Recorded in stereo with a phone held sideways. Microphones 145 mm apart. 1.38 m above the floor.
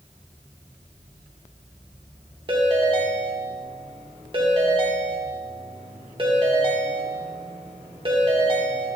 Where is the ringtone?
35° right (ahead or behind), 1.3 m.